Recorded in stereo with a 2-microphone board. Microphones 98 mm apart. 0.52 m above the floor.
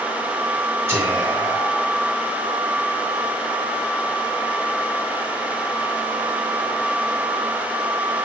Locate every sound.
0.9 s whispering: 25° right (ahead or behind), 2.0 m